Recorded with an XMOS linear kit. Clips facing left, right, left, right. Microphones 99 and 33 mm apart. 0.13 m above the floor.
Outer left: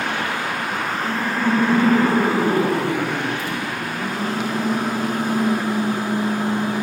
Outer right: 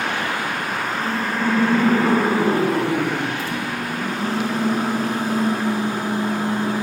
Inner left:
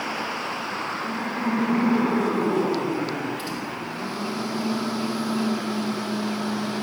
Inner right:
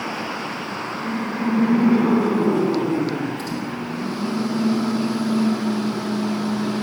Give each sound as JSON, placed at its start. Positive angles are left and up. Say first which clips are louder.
{"t": 0.9, "sound": "laughter", "louder": "even, inner right 2 dB", "side_deg": 0, "distance_m": 2.0}
{"t": 3.4, "sound": "a microwave", "louder": "even, inner right 3 dB", "side_deg": 15, "distance_m": 3.5}